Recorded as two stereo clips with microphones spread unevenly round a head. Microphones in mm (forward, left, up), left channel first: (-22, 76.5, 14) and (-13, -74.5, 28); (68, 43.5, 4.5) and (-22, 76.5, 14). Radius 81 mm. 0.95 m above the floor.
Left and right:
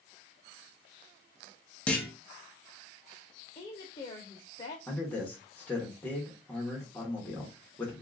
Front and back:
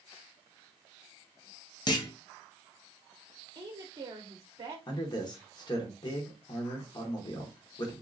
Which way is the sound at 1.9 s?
15° left.